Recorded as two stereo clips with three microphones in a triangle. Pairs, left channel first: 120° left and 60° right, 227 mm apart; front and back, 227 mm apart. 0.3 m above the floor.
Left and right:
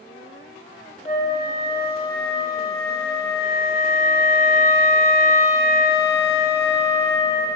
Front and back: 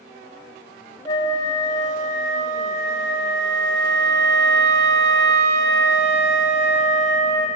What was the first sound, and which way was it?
A flute, 75° left.